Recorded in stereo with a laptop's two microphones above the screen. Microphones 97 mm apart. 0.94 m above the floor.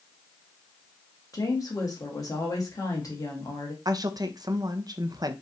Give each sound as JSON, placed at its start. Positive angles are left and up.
{"t": 1.3, "sound": "a woman speaking", "side_deg": 40, "distance_m": 1.2}
{"t": 3.9, "sound": "a woman speaking", "side_deg": -40, "distance_m": 0.6}